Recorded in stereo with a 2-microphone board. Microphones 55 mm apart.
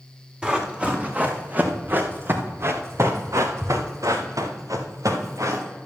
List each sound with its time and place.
0.4 s running footsteps: 20° right (ahead or behind), 3 m; by 5.6 s 80° right, 3 m